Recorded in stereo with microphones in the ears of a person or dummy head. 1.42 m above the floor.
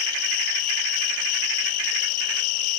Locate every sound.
0.0 s an insect: 45° left (ahead or behind), 3 m